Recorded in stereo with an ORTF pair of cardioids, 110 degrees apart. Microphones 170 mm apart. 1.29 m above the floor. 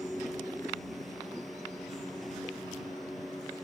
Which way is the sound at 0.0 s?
Straight ahead.